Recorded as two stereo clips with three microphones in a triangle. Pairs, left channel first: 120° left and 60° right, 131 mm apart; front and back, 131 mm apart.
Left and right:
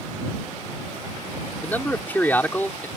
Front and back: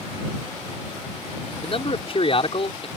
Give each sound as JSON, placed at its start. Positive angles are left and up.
{"t": 1.6, "sound": "a man speaking", "azimuth_deg": 45}